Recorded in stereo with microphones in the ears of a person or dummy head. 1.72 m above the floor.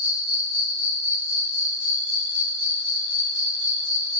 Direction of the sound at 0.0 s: 75° left (ahead or behind).